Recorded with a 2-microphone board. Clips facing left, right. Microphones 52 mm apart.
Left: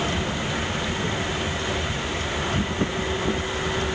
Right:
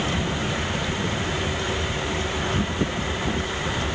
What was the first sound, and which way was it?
Only background noise.